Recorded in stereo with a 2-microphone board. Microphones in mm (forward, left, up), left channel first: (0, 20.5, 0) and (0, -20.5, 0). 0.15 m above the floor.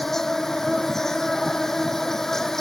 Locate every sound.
0.0 s an insect: 10° left (ahead or behind)